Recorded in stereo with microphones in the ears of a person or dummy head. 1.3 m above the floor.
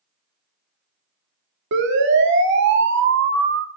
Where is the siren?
65° right (ahead or behind), 3 m; by 3.7 s 60° right (ahead or behind), 1.4 m.